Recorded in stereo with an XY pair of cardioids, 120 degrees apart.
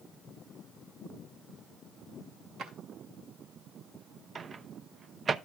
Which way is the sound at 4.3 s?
35° right.